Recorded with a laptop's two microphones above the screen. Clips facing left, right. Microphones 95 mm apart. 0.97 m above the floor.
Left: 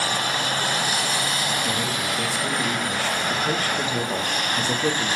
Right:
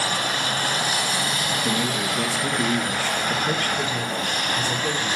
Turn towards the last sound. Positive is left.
turn(degrees=60)  # may be behind; listen again after turning